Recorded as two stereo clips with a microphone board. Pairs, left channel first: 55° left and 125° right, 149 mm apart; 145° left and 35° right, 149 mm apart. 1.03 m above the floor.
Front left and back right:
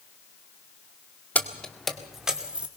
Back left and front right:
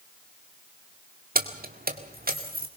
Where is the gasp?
I don't hear a gasp.